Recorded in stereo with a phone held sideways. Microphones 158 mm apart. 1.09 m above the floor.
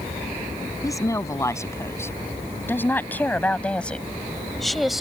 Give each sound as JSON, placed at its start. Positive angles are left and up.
{"t": 0.8, "sound": "a woman speaking", "side_deg": 20}